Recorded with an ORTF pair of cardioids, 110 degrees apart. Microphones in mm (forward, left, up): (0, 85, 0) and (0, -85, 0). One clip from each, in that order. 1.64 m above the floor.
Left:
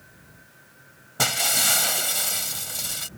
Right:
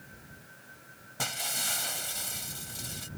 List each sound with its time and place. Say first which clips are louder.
1.2 s breaking glass: left 10 dB; 60° left